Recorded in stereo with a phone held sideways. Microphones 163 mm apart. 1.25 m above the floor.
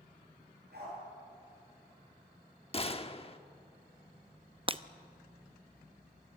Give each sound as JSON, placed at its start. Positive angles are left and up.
{"t": 0.7, "sound": "a dog barking", "side_deg": -85, "distance_m": 9.0}
{"t": 2.7, "sound": "a gunshot", "side_deg": 35, "distance_m": 1.0}
{"t": 4.7, "sound": "breaking glass", "side_deg": -35, "distance_m": 0.6}